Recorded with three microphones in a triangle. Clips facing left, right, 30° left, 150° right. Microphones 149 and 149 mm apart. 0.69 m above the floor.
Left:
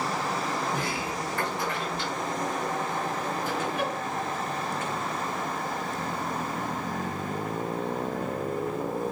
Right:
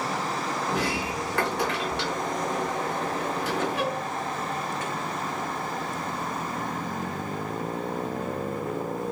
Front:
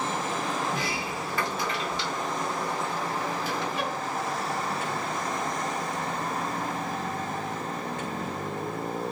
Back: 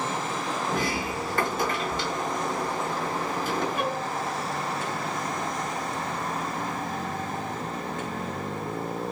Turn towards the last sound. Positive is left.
turn(degrees=-105)